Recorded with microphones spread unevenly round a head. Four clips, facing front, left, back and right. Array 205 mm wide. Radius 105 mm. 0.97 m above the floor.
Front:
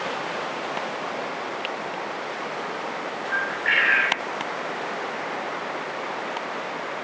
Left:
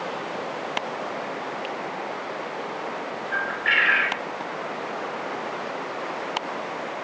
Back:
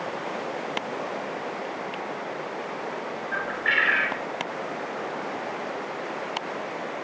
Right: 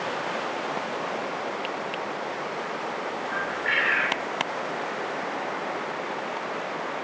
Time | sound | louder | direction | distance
3.3 | a bird | left 4 dB, front 2 dB | 130° left | 3 m